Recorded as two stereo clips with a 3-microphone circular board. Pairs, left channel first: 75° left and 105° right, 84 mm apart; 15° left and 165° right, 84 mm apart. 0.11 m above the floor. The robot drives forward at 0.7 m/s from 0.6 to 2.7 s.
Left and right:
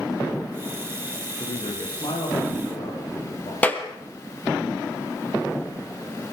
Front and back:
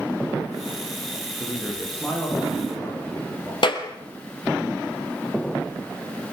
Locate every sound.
1.4 s a man speaking: 95° left, 9.5 m; by 3.5 s 100° left, 9.5 m
3.6 s a clap: 5° left, 3 m